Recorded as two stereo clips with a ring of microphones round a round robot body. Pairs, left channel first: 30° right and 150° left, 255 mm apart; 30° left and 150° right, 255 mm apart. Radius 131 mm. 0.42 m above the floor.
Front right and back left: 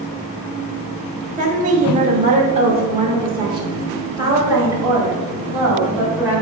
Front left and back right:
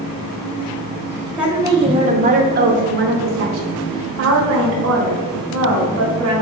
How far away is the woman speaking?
About 0.8 m.